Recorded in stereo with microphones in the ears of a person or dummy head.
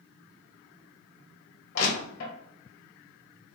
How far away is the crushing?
About 1.7 m.